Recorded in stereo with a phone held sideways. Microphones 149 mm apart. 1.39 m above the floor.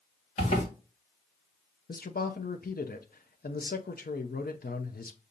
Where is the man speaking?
85° left, 0.7 m.